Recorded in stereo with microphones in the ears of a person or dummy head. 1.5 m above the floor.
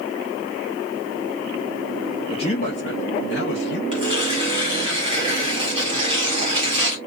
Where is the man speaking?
25° left (ahead or behind), 0.5 m; by 3.8 s 60° left (ahead or behind), 1.0 m.